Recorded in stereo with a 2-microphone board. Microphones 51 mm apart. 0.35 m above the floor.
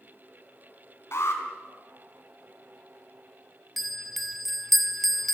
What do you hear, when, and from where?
1.1 s an alarm: 65° left (ahead or behind), 4 m
3.8 s a bell: centre (ahead or behind), 1.0 m